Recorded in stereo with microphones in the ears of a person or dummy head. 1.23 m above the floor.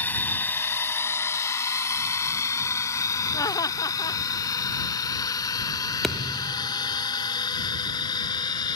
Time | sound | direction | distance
0.0 | a drone | 10° left (ahead or behind) | ?
3.3 | laughter | 25° left (ahead or behind) | ?
6.0 | a thud | 5° left (ahead or behind) | ?